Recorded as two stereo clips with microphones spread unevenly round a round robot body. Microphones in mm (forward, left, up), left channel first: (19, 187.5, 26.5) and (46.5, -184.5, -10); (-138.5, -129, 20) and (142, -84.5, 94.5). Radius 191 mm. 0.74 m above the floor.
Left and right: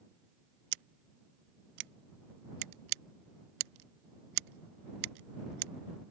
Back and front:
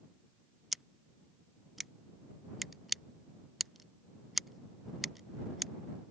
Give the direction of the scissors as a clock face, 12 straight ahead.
3 o'clock.